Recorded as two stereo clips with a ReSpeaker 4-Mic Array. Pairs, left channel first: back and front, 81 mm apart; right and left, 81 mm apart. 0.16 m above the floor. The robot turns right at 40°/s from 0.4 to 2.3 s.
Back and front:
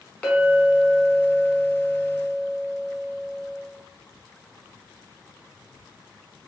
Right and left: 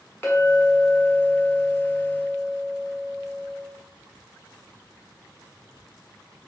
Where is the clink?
115° right, 1.0 m; by 3.6 s 40° right, 1.0 m.